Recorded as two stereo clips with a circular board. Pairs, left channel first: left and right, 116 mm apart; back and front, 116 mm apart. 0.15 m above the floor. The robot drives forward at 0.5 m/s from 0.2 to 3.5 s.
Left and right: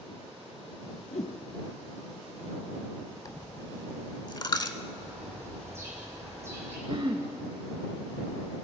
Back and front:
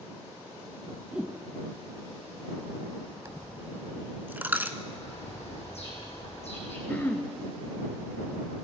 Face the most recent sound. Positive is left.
turn(degrees=-110)